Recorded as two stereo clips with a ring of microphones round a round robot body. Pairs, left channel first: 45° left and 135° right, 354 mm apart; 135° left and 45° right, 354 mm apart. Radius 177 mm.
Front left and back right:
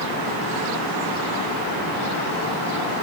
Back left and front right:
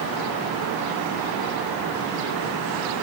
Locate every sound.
Only background noise.